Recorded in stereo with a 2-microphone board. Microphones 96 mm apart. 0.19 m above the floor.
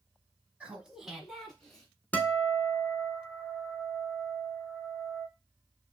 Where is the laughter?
15° right (ahead or behind), 1.1 m; by 1.9 s 5° left (ahead or behind), 1.8 m.